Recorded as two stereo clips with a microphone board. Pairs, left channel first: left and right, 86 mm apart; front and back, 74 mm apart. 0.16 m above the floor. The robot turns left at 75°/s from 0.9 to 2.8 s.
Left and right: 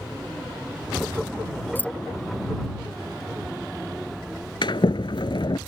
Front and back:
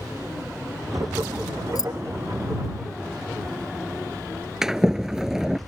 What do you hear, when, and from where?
1.8 s keys jangling: 25° left; by 1.9 s 10° left
4.6 s a sliding door: 100° left